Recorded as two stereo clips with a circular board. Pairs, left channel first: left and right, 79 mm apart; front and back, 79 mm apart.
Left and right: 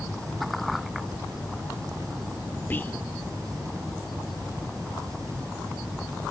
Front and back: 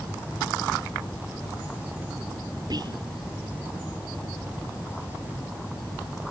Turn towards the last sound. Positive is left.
turn(degrees=155)